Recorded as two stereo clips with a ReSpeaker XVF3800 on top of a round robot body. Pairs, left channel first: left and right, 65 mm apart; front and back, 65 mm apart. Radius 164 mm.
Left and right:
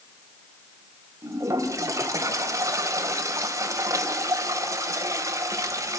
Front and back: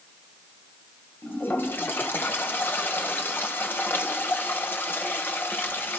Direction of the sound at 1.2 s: 55° right.